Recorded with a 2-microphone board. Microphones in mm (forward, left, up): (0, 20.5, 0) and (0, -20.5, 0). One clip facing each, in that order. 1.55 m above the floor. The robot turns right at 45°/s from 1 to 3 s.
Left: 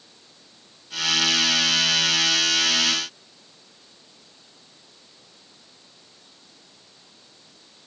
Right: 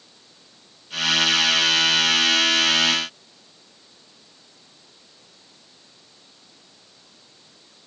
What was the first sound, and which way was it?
Only background noise.